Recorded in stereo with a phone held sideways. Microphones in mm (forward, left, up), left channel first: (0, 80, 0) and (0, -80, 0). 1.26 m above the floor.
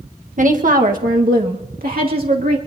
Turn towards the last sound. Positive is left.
turn(degrees=-80)